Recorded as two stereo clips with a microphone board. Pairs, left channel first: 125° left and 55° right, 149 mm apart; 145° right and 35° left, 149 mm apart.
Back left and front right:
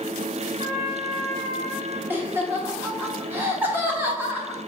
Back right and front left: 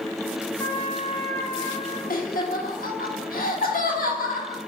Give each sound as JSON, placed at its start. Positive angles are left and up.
{"t": 0.6, "sound": "a trumpet", "azimuth_deg": -80, "distance_m": 1.4}
{"t": 2.1, "sound": "laughter", "azimuth_deg": -130, "distance_m": 1.3}